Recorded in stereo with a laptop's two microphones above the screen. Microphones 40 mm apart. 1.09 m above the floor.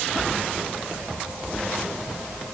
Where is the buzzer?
I don't hear a buzzer.